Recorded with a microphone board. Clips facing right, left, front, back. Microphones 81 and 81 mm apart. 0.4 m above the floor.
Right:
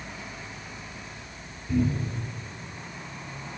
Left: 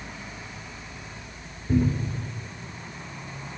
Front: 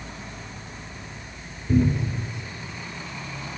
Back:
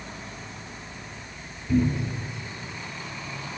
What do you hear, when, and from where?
1.7 s a cupboard door: 50° left, 4 m